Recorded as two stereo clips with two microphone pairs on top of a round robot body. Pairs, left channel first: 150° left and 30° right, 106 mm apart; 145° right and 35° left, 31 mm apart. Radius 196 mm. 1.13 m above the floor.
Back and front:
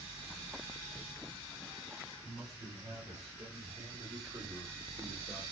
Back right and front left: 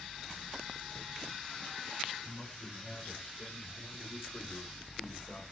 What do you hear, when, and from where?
2.2 s a man speaking: 80° right, 4 m; by 5.4 s 130° right, 2.5 m